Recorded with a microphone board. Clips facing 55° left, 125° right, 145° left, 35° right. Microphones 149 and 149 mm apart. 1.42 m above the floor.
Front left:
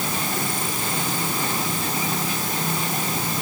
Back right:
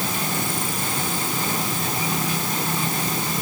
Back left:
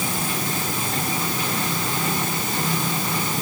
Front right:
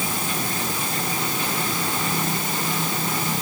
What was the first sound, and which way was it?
Only background noise.